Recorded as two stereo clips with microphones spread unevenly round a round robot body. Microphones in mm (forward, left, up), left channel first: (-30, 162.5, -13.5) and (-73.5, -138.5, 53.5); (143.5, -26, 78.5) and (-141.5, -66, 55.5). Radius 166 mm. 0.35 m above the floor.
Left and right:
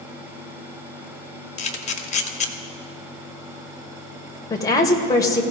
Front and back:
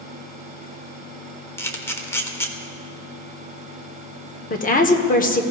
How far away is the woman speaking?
About 1.2 m.